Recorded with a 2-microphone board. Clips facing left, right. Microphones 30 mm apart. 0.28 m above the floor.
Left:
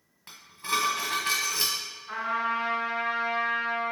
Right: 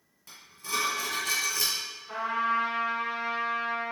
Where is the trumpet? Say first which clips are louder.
Even; 40° left (ahead or behind), 1.8 m.